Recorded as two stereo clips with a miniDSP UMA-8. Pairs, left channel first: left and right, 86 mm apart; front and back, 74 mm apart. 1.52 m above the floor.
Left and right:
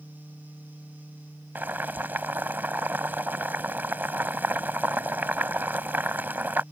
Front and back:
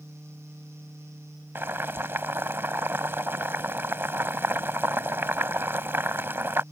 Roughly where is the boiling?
Behind right.